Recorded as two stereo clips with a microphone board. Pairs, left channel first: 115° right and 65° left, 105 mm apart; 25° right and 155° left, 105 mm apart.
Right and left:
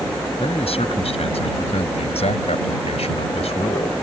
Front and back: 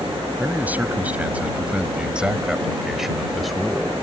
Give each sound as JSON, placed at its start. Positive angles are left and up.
{"t": 0.4, "sound": "a man speaking", "azimuth_deg": -130}